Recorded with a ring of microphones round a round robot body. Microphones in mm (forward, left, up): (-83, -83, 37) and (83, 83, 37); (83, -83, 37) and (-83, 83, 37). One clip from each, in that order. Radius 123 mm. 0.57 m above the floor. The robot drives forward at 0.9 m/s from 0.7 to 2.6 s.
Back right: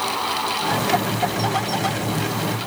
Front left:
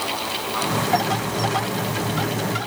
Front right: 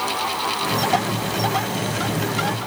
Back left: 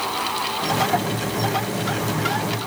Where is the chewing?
No chewing in this recording.